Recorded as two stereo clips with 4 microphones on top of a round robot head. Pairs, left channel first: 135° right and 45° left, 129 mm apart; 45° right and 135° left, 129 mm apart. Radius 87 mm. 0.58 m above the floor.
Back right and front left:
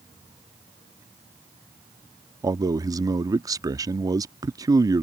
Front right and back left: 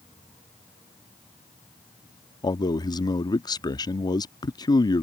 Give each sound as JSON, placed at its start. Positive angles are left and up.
{"t": 2.4, "sound": "a man speaking", "azimuth_deg": -5}